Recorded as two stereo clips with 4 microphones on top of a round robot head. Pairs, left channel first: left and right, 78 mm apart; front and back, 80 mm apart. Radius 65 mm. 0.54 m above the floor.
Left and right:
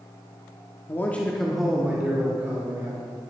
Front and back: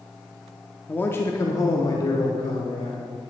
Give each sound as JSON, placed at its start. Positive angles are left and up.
{"t": 0.9, "sound": "a man speaking", "azimuth_deg": 55, "distance_m": 0.9}